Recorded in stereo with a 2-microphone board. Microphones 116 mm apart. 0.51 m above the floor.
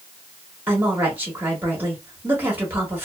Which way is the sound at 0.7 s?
15° right (ahead or behind).